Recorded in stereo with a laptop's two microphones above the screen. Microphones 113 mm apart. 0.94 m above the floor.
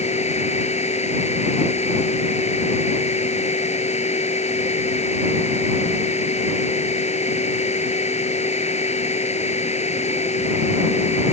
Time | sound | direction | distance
0.0 | a machine running | 80° left | ?